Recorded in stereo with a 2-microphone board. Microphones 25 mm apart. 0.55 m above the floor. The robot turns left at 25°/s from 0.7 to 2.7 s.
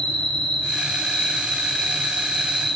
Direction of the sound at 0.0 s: 55° left.